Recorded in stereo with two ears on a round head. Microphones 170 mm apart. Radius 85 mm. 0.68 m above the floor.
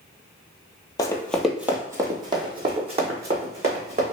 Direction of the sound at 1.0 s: 20° left (ahead or behind).